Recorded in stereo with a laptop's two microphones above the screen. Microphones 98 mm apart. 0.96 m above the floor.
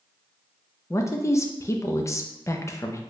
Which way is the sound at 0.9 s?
30° left (ahead or behind).